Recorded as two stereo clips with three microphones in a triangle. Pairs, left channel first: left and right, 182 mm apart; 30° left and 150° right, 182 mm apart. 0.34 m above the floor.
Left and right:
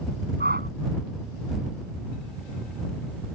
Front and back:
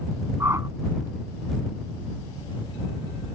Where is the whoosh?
75° right.